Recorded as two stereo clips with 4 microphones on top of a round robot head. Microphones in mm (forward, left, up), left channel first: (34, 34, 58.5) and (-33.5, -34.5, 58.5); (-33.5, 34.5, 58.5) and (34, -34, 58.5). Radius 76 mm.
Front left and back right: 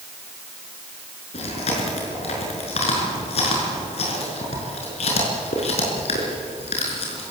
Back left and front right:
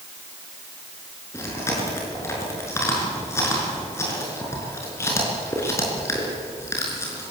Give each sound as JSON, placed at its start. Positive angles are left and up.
{"t": 1.3, "sound": "chewing", "azimuth_deg": 70, "distance_m": 5.0}